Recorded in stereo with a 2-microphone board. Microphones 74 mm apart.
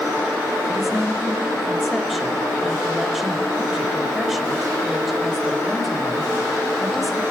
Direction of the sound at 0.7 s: Centre (ahead or behind).